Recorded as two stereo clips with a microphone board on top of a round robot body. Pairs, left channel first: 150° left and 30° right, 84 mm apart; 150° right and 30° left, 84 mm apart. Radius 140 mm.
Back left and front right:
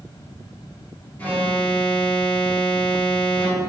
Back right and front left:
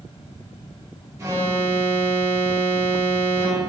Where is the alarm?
80° left, 3.5 m.